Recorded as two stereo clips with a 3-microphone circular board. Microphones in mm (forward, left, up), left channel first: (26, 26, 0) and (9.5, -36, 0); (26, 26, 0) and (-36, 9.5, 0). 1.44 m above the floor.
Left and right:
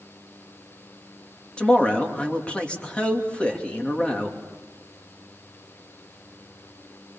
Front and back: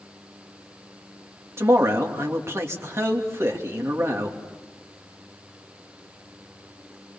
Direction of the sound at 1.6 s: 145° left.